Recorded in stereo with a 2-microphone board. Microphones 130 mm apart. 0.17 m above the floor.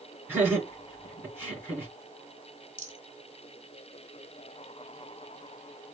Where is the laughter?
15° right (ahead or behind), 2 m.